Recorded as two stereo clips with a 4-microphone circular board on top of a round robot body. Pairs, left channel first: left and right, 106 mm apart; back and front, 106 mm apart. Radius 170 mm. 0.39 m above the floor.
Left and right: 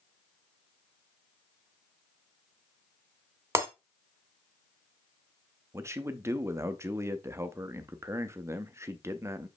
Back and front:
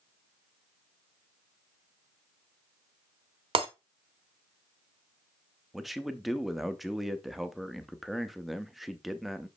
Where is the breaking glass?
25° right, 1.1 m.